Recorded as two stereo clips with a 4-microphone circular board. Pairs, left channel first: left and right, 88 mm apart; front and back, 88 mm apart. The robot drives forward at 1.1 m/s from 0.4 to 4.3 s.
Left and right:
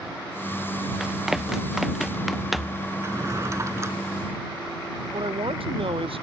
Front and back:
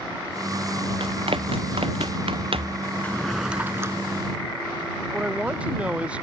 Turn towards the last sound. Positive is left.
turn(degrees=-105)